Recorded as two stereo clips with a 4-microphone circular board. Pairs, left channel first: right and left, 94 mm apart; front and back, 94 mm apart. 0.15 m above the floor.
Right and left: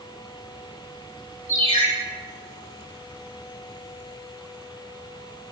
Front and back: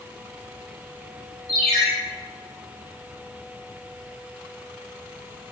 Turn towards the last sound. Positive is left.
turn(degrees=85)